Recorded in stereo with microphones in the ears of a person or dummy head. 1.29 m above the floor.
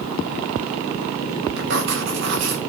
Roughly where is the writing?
Right.